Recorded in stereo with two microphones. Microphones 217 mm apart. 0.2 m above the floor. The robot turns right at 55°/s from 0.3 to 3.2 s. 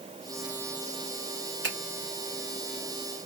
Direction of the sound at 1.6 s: 60° right (ahead or behind).